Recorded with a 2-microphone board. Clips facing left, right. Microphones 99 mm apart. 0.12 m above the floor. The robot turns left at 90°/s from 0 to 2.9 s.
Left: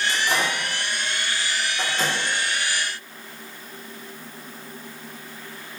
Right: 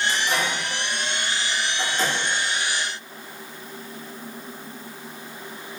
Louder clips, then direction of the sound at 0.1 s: Left 1 dB; centre (ahead or behind).